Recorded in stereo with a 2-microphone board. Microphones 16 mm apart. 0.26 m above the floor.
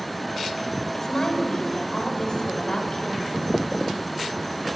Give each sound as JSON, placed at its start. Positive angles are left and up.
{"t": 0.9, "sound": "a woman speaking", "side_deg": 25, "distance_m": 1.2}